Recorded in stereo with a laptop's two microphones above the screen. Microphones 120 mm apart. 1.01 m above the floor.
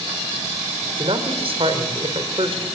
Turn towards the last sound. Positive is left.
turn(degrees=-50)  # may be behind; listen again after turning